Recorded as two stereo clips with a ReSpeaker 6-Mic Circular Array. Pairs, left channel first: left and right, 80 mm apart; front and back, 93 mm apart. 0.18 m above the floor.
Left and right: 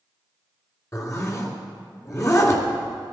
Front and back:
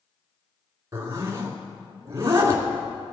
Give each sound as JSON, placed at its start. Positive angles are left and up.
{"t": 0.9, "sound": "a zipper", "azimuth_deg": 130, "distance_m": 2.5}